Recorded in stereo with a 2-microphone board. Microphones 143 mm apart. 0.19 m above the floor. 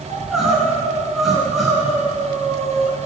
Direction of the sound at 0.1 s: Centre (ahead or behind).